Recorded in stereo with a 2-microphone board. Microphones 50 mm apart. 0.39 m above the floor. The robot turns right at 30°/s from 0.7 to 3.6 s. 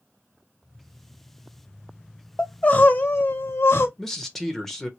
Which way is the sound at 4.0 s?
5° left (ahead or behind).